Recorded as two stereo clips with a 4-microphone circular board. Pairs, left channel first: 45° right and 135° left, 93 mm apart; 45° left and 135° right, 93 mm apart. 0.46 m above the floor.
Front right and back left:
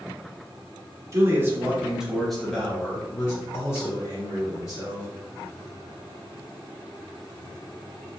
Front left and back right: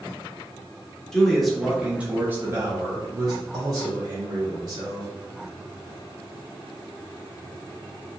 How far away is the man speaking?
About 0.9 m.